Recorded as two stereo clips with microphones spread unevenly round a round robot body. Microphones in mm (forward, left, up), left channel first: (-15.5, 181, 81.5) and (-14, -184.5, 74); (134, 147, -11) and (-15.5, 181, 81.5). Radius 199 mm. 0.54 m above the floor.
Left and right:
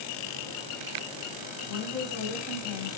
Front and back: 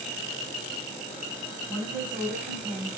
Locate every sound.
1.7 s a woman speaking: 145° left, 4.5 m